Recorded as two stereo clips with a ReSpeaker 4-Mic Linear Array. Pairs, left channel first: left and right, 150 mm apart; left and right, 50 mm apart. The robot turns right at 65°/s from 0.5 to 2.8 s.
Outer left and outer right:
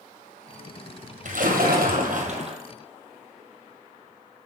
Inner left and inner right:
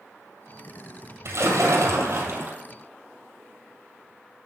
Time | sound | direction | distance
1.2 | a splash | 120° right | 2 m